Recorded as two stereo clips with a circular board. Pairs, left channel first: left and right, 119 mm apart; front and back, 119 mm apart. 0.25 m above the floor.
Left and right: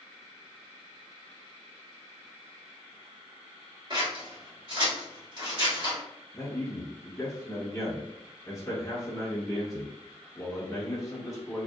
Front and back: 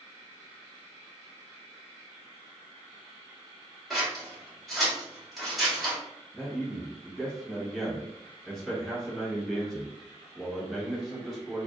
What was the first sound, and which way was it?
Scissors, 90° right.